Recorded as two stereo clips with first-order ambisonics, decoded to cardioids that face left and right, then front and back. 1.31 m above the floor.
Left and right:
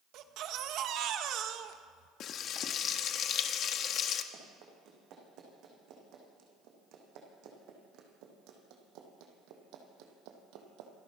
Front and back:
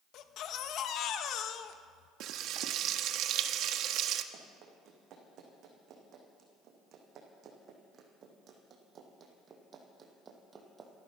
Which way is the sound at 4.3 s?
130° right.